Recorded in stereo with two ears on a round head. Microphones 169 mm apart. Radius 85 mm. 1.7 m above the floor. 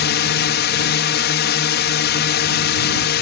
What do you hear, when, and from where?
0.0 s a drone: 60° left (ahead or behind)